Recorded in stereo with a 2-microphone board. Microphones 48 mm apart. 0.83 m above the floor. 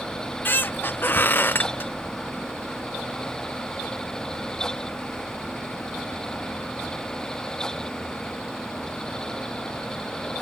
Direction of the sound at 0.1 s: 45° left (ahead or behind).